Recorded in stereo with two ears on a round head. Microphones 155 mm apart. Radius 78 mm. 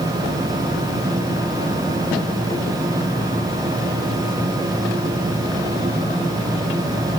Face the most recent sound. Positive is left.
No sound to turn to.